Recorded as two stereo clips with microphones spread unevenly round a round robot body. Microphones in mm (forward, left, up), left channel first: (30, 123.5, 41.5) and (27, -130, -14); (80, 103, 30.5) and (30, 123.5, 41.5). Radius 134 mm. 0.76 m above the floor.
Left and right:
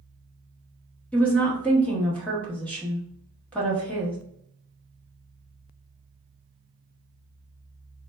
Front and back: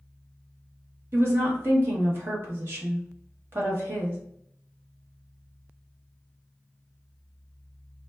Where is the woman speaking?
175° right, 0.8 m.